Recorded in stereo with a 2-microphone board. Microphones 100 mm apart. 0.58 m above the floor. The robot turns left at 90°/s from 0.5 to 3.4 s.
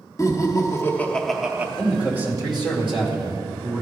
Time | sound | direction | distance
0.2 | laughter | 75° left | 0.7 m
1.8 | a man speaking | 10° left | 2 m